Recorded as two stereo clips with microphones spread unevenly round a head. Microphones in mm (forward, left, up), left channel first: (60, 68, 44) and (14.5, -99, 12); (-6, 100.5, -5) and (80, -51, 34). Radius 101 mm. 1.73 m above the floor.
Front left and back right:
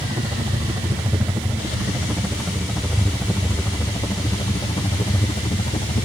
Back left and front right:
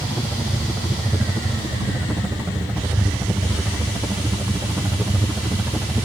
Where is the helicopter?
150° right; by 6.0 s 35° left.